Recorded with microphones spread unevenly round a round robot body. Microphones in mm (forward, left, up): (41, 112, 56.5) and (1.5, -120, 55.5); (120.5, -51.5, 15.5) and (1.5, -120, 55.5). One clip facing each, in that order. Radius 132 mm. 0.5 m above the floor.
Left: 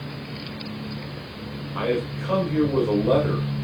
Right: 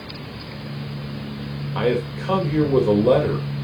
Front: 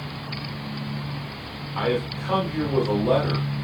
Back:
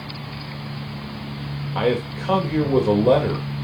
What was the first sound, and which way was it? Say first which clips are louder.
A man speaking: right 3 dB, back 3 dB; 130° right.